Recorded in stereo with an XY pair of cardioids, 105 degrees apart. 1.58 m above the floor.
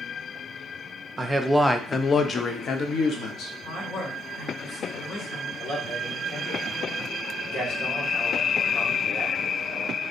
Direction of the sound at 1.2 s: 20° right.